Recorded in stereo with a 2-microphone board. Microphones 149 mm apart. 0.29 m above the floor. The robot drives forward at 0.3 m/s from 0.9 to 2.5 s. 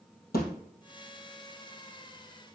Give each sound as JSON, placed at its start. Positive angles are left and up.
{"t": 0.3, "sound": "a thud", "side_deg": 85, "distance_m": 2.5}